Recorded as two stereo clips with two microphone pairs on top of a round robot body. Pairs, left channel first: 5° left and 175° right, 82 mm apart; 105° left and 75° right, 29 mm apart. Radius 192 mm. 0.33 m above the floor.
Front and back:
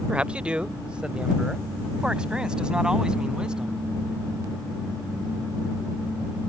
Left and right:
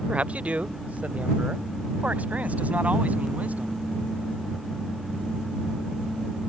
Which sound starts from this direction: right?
A man speaking, at 0.1 s.